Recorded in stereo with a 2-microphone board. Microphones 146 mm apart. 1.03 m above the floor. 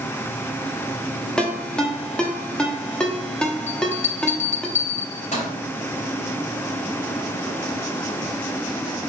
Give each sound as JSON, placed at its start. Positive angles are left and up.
{"t": 1.4, "sound": "a ringtone", "side_deg": 5, "distance_m": 1.1}
{"t": 3.7, "sound": "a bell", "side_deg": 55, "distance_m": 2.5}